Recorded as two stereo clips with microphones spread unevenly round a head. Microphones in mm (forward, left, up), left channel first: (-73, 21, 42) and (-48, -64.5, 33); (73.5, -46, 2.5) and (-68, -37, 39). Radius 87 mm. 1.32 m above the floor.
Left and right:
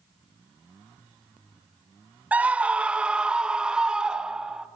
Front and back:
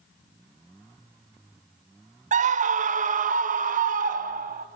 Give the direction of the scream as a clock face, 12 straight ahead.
5 o'clock.